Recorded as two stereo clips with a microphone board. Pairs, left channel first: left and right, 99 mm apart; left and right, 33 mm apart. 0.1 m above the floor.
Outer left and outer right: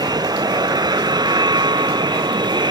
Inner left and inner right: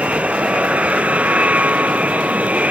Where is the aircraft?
45° right (ahead or behind).